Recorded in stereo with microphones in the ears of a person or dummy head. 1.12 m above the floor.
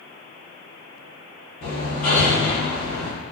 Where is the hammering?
45° left (ahead or behind), 1.5 m.